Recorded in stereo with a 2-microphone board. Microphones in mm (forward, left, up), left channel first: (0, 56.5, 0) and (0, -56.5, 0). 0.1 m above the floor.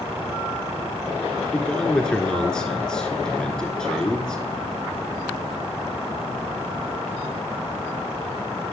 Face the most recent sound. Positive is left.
turn(degrees=5)  # may be behind; listen again after turning